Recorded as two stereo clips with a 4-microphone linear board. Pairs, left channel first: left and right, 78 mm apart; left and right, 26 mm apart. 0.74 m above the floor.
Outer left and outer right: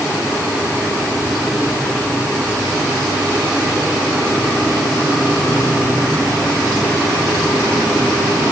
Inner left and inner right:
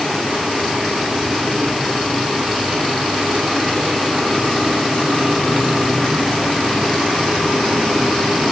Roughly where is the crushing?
I don't hear crushing.